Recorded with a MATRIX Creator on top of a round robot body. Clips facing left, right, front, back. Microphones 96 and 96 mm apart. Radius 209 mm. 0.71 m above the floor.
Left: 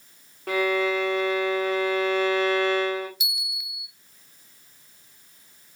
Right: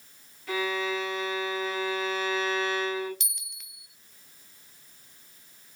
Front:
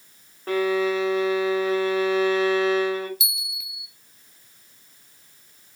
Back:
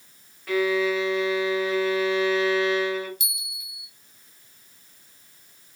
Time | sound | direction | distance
0.5 | a violin | 55° left | 3.5 m
3.2 | a bell | 5° left | 0.6 m